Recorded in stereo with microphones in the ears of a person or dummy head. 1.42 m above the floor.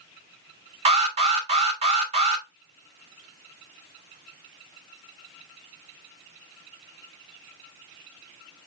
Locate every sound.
0.8 s an alarm: 35° right (ahead or behind), 3 m